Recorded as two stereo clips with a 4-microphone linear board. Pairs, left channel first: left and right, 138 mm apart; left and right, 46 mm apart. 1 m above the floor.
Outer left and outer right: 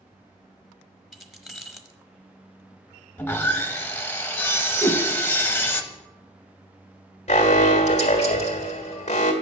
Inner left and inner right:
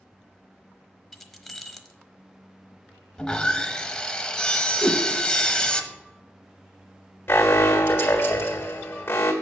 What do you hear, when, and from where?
1.1 s keys jangling: centre (ahead or behind), 0.9 m
3.2 s sawing: 15° left (ahead or behind), 0.8 m
4.8 s a whoosh: 10° left (ahead or behind), 1.1 m
7.3 s an alarm: 55° left (ahead or behind), 1.5 m